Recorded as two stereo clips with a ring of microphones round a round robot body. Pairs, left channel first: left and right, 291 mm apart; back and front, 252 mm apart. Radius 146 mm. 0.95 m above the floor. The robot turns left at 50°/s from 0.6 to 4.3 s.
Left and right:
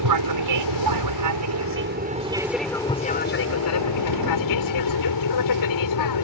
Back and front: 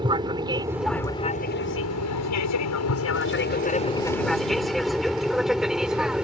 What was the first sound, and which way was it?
An aircraft, 75° right.